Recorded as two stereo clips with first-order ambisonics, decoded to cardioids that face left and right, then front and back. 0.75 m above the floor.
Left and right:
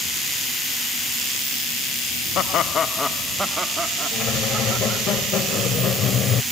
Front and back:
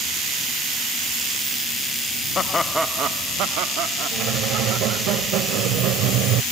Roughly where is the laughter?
Ahead left.